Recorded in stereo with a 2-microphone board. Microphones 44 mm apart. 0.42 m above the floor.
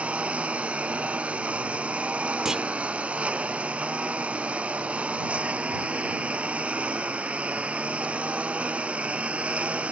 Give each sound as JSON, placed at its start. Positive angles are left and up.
{"t": 0.0, "sound": "a lawn mower", "side_deg": -30}
{"t": 2.5, "sound": "a clunk", "side_deg": -15}